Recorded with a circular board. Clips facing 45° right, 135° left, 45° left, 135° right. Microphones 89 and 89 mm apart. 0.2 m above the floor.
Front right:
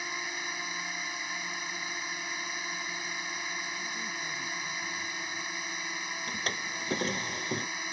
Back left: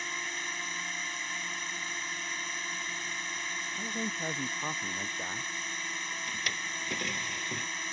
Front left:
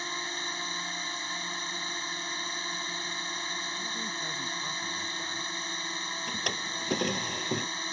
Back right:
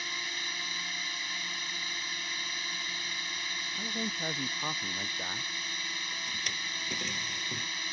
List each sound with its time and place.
0.0 s a drone: 30° left
3.8 s a man speaking: 170° left
6.3 s a drawer: 10° left